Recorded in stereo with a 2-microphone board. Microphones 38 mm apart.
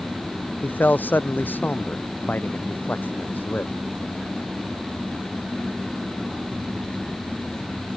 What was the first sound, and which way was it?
A man speaking, 55° left (ahead or behind).